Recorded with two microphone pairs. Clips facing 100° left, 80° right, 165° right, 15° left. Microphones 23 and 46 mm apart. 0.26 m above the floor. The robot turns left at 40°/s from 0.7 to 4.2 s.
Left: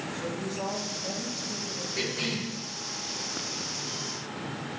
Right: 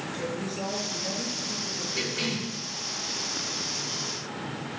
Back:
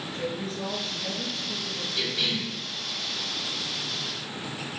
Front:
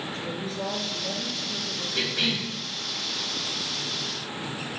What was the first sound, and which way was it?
A woman speaking, 120° right.